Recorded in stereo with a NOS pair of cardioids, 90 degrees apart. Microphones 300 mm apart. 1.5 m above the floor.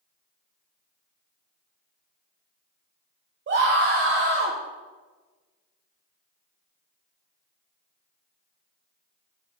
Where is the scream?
40° right, 1.0 m.